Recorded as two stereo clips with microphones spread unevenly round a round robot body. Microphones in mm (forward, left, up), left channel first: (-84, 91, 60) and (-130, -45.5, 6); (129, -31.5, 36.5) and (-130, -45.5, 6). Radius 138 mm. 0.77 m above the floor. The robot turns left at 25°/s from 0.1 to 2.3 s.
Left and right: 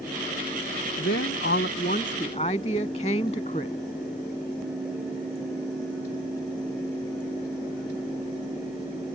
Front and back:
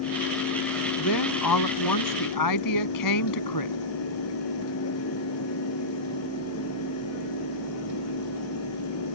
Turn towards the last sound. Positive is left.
turn(degrees=5)